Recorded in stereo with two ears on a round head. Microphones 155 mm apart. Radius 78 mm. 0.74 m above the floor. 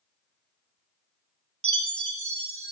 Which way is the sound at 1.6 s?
35° right (ahead or behind).